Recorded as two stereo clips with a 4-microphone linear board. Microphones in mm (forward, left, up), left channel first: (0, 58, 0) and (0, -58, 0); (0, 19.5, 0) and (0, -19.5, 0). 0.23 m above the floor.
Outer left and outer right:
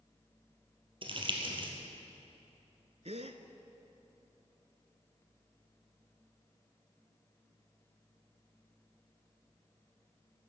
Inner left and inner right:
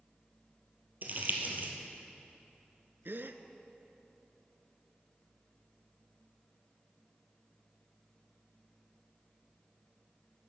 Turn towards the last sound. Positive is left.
turn(degrees=-70)  # may be behind; listen again after turning